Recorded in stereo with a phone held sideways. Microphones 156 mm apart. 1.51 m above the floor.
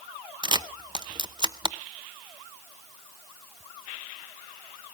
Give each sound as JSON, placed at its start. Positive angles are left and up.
{"t": 0.4, "sound": "a camera shutter", "side_deg": -30, "distance_m": 0.7}